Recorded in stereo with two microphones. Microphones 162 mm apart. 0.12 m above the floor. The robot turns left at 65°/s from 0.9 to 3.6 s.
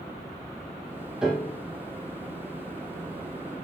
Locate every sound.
1.2 s a piano: 5° right (ahead or behind), 5.5 m; by 1.6 s 20° left (ahead or behind), 5.5 m